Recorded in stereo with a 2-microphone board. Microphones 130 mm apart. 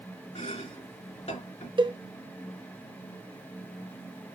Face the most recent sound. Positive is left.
turn(degrees=-40)  # may be behind; listen again after turning